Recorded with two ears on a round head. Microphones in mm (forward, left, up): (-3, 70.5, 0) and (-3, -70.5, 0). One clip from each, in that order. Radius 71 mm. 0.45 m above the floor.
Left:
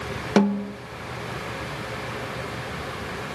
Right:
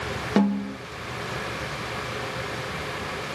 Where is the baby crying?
I don't hear a baby crying.